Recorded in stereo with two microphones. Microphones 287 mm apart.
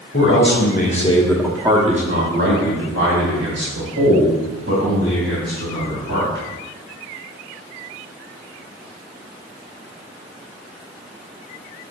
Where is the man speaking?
50° left (ahead or behind), 1.5 m; by 6.4 s 80° right, 4.5 m.